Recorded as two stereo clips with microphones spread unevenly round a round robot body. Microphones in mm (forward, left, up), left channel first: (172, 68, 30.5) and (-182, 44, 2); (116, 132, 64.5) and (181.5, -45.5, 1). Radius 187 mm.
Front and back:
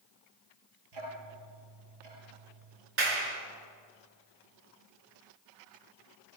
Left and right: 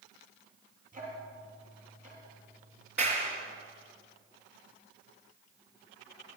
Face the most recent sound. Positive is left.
turn(degrees=-150)